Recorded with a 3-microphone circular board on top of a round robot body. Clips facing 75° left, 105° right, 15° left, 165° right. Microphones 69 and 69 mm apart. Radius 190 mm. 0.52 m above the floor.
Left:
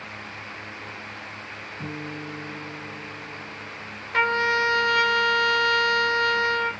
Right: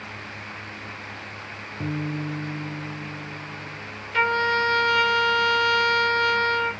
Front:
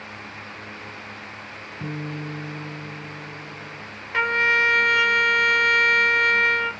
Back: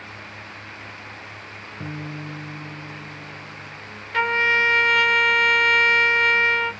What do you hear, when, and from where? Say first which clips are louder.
1.8 s a guitar: right 6 dB, front 2 dB; 105° right, 0.5 m
4.1 s a trumpet: even, even; 90° left, 1.7 m